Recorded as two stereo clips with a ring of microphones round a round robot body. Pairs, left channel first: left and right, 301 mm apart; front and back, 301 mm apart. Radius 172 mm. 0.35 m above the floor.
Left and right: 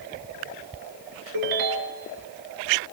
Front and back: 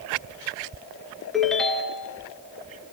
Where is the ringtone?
90° right, 3 m.